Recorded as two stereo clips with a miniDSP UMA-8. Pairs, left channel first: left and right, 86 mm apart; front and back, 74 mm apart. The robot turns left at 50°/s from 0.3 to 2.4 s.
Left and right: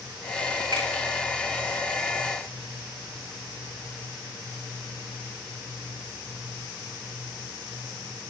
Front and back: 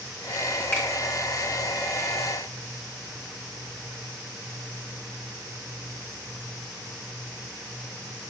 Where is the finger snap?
65° right, 5 m; by 0.9 s 75° right, 5 m.